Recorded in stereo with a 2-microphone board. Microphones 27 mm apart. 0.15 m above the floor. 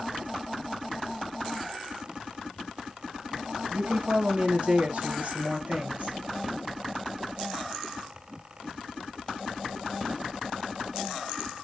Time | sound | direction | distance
3.7 | a woman speaking | 45° right (ahead or behind) | 2.5 m